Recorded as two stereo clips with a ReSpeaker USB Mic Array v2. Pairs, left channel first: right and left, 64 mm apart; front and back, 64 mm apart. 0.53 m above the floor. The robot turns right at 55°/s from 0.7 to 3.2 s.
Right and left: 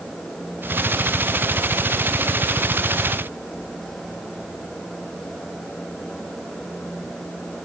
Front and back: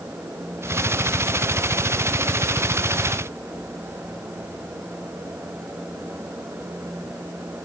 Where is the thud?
No thud in this recording.